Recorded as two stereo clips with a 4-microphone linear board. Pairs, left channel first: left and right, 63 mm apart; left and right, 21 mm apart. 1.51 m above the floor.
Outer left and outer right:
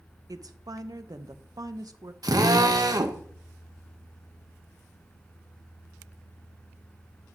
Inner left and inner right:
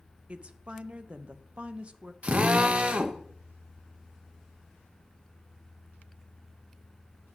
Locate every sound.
0.3 s a woman speaking: 75° right (ahead or behind), 0.5 m
2.2 s a drill: 85° right, 0.7 m